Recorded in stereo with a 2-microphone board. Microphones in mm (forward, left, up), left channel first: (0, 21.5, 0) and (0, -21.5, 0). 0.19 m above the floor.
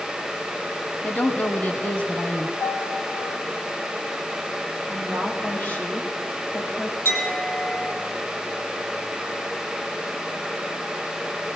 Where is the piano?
80° left, 6 m.